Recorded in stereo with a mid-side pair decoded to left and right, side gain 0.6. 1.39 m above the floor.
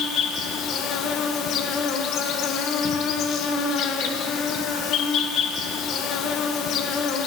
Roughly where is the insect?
Ahead left.